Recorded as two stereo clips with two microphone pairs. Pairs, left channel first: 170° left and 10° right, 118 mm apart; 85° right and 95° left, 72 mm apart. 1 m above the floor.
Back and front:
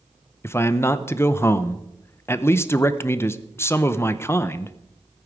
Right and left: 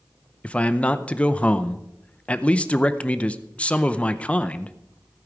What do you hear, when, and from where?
0.4 s a man speaking: 145° right, 0.6 m